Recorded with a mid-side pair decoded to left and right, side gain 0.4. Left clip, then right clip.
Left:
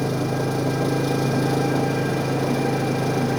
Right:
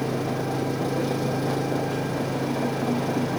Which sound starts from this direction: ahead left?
An engine running, at 0.0 s.